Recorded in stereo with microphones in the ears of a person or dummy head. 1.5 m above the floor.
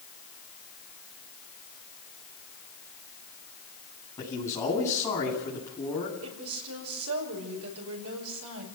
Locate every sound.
4.2 s a man speaking: 10° left (ahead or behind), 9.5 m
6.2 s a woman speaking: 85° right, 5.5 m